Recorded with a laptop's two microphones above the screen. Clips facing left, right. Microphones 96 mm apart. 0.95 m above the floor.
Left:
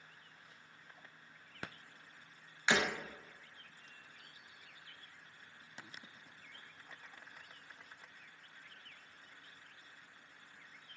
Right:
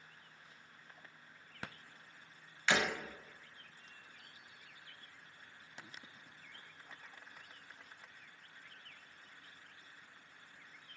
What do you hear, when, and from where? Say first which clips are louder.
2.7 s breaking glass: even; 15° left (ahead or behind), 0.8 m